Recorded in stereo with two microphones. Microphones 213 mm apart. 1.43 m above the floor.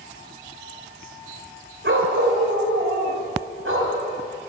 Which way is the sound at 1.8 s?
70° right (ahead or behind).